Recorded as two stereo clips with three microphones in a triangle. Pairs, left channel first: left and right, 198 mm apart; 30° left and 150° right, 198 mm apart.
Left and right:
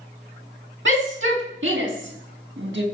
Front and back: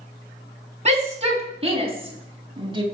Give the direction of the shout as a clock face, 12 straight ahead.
3 o'clock.